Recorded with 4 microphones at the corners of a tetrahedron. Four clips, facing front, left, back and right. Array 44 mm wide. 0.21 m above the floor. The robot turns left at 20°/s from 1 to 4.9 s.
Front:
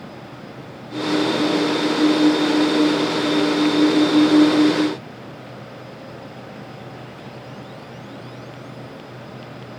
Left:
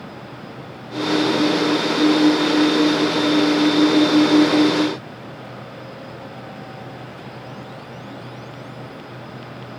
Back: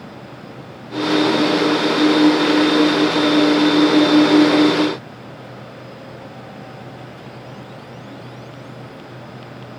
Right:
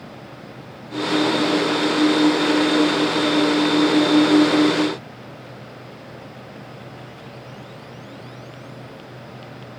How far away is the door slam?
I don't hear a door slam.